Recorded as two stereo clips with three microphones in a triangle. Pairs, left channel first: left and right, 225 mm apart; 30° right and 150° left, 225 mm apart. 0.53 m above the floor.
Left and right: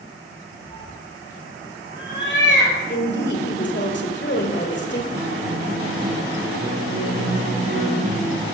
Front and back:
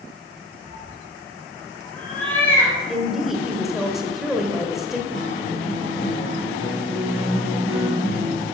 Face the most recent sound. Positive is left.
turn(degrees=-50)